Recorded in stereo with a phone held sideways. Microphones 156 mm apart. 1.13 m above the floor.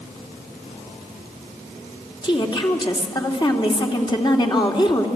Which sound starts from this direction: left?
A woman speaking, at 2.2 s.